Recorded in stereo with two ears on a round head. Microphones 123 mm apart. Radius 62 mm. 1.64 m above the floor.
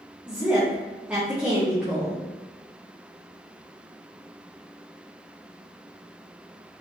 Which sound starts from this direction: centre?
A woman speaking, at 0.3 s.